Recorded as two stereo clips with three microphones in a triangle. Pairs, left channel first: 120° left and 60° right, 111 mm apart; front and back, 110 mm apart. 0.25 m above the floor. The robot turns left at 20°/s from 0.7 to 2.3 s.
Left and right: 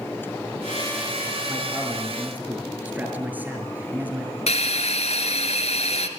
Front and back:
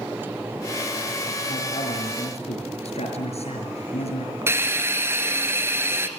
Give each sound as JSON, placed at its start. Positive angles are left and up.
{"t": 1.5, "sound": "a man speaking", "azimuth_deg": 30, "distance_m": 5.5}
{"t": 4.5, "sound": "a hiss", "azimuth_deg": 115, "distance_m": 1.7}